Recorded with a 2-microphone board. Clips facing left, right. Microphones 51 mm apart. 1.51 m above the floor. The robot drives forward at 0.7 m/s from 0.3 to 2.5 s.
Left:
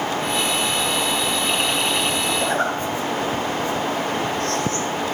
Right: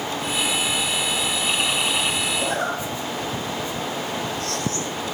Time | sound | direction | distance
2.4 | a zipper | 40° left (ahead or behind) | 0.8 m